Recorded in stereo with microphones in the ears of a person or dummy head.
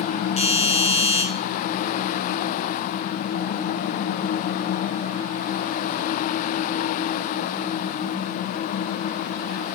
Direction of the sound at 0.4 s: 30° left (ahead or behind).